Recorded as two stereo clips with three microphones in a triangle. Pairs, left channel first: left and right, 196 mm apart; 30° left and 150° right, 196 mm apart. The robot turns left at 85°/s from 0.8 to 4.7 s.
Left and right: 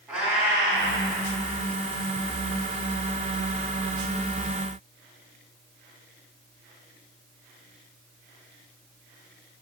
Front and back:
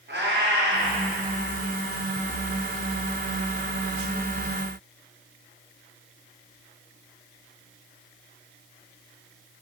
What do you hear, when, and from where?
0.1 s a cat meowing: 175° right, 2.5 m; by 1.0 s 170° left, 2.5 m